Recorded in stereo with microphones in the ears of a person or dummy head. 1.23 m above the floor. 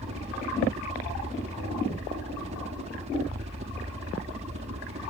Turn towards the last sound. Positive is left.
turn(degrees=-35)  # may be behind; listen again after turning